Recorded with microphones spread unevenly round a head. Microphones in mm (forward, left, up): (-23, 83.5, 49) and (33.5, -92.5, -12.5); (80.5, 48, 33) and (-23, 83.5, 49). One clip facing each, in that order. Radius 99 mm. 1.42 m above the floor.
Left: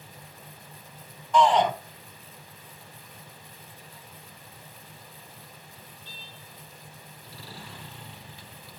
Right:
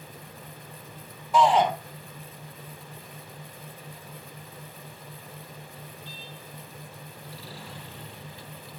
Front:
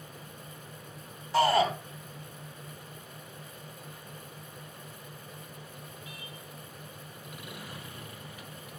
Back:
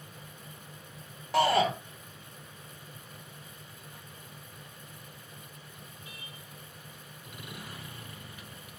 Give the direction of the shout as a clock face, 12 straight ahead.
5 o'clock.